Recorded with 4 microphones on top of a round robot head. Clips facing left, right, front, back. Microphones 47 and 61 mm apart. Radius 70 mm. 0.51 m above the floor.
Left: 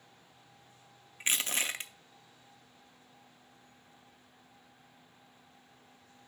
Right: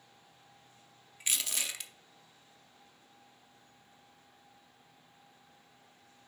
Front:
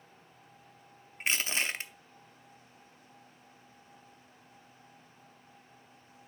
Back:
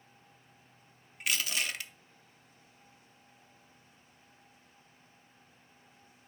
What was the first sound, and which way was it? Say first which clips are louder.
Crushing: left 4 dB, front 2 dB; 45° left.